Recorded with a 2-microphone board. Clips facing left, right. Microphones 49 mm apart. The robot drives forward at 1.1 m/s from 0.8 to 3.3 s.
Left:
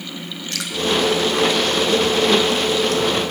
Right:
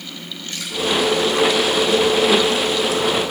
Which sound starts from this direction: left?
Dripping, at 0.5 s.